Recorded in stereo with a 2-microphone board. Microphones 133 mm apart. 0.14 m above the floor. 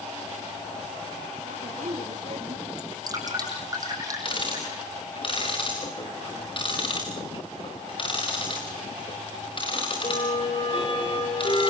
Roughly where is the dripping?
Right.